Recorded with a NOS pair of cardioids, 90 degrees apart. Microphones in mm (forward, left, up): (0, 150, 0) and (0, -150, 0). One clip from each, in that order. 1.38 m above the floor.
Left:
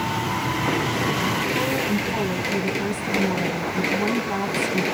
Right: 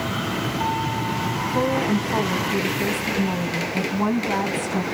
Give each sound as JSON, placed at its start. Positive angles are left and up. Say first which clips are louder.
{"t": 1.5, "sound": "a woman speaking", "louder": "right 1 dB", "azimuth_deg": -25, "distance_m": 1.0}